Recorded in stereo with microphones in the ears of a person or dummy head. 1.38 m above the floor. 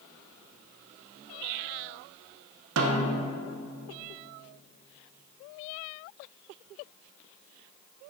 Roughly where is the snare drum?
Right.